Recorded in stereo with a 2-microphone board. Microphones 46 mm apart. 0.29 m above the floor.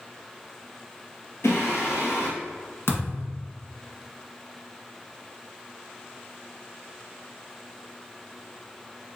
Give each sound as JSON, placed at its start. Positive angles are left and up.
{"t": 1.4, "sound": "singing", "side_deg": 70, "distance_m": 1.4}
{"t": 2.9, "sound": "a thud", "side_deg": 70, "distance_m": 1.3}